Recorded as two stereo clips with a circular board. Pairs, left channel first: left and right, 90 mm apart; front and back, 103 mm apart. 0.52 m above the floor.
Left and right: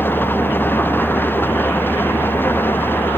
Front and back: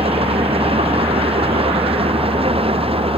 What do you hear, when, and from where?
0.0 s an engine running: 160° left